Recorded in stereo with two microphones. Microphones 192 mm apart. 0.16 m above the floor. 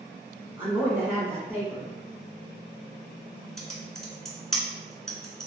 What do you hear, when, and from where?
0.6 s a woman speaking: 10° right (ahead or behind), 1.4 m
3.6 s typing on a keyboard: centre (ahead or behind), 0.9 m